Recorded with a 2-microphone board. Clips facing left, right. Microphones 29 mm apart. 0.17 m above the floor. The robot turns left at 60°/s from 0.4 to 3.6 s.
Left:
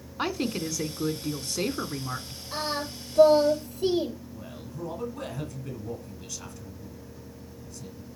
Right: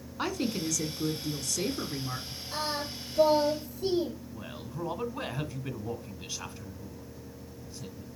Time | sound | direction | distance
0.2 | a woman speaking | 150° left | 1.4 m
2.5 | singing | 140° left | 5 m
4.3 | a man speaking | 35° right (ahead or behind) | 1.9 m